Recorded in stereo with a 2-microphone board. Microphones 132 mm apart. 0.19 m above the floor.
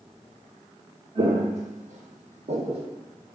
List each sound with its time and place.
1.1 s footsteps: 50° right (ahead or behind), 0.7 m